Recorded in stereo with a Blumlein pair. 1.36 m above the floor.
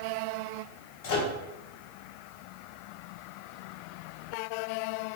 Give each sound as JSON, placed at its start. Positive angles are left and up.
{"t": 1.0, "sound": "a microwave", "azimuth_deg": 45, "distance_m": 0.8}